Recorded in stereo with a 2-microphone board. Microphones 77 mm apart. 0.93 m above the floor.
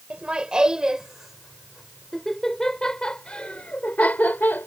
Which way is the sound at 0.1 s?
15° right (ahead or behind).